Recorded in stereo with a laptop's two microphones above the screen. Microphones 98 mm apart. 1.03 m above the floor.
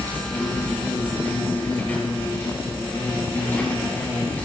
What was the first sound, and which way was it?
An insect, 20° left (ahead or behind).